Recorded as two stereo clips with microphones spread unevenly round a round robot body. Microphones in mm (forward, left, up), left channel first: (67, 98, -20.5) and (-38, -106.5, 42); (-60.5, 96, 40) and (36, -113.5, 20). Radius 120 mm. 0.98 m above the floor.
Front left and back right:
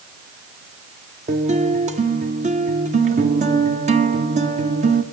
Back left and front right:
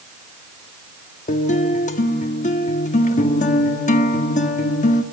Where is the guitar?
175° left, 1.9 m.